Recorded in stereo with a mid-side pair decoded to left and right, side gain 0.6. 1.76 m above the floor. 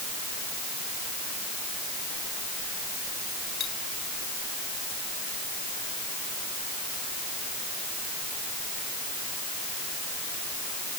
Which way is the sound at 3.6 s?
50° left.